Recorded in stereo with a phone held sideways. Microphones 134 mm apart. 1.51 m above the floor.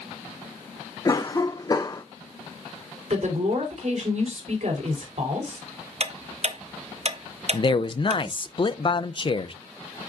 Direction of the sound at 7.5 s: 35° left (ahead or behind).